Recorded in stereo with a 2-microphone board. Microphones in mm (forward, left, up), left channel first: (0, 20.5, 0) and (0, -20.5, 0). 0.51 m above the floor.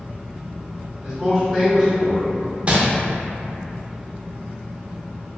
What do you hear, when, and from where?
1.0 s a man speaking: 10° right (ahead or behind), 1.6 m; by 2.3 s 10° left (ahead or behind), 1.6 m
2.7 s crumpling: 30° right (ahead or behind), 0.5 m